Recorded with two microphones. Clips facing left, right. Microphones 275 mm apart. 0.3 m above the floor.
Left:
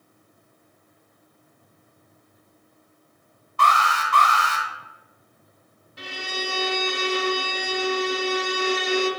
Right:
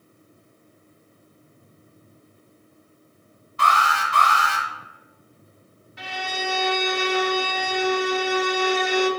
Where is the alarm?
60° left (ahead or behind), 2.5 m.